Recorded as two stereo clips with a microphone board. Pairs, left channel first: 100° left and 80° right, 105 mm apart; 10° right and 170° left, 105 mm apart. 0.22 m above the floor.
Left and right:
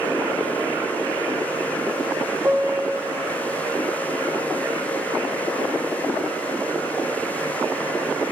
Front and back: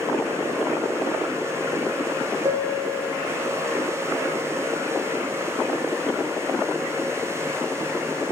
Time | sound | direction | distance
2.5 | a piano | 145° right | 1.3 m